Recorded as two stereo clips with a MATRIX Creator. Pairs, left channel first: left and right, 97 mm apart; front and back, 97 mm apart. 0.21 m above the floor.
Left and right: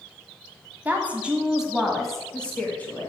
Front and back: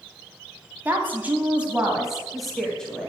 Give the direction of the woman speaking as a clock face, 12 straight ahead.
5 o'clock.